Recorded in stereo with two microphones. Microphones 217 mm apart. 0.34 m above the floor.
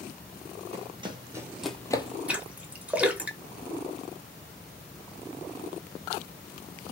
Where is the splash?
5° right (ahead or behind), 0.9 m.